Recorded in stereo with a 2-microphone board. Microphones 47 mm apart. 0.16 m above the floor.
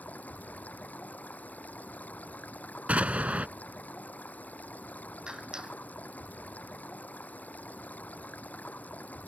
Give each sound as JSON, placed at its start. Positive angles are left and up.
{"t": 0.0, "sound": "running water", "side_deg": 30}
{"t": 2.9, "sound": "an explosion", "side_deg": -30}
{"t": 5.3, "sound": "a clap", "side_deg": -15}